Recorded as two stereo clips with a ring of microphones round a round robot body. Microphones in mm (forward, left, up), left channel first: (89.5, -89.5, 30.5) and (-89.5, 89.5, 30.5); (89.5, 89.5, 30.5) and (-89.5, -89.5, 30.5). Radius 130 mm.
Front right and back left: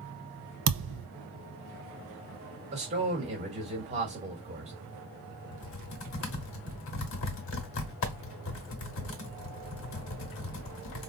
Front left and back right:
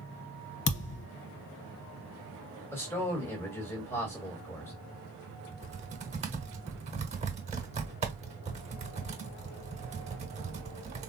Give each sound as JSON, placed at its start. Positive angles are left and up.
{"t": 0.7, "sound": "a thud", "azimuth_deg": 95, "distance_m": 0.7}
{"t": 2.7, "sound": "a man speaking", "azimuth_deg": 115, "distance_m": 1.6}
{"t": 5.5, "sound": "typing on a keyboard", "azimuth_deg": -75, "distance_m": 0.9}